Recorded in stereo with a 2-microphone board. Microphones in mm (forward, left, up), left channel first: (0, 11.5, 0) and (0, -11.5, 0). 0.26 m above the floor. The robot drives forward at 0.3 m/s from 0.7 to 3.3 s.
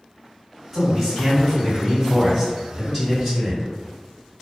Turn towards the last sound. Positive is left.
turn(degrees=15)  # may be behind; listen again after turning